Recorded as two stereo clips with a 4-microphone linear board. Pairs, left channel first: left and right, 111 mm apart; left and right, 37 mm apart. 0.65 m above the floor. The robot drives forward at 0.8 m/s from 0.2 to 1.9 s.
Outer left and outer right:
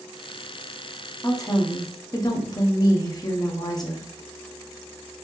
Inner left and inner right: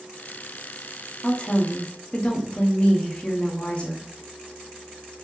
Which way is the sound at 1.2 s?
30° left (ahead or behind).